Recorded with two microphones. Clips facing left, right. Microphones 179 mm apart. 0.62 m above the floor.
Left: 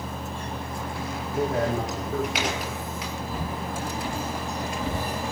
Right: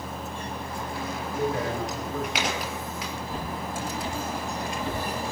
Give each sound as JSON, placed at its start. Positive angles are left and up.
{"t": 1.3, "sound": "a man speaking", "side_deg": 75, "distance_m": 5.0}
{"t": 3.3, "sound": "footsteps", "side_deg": 5, "distance_m": 8.5}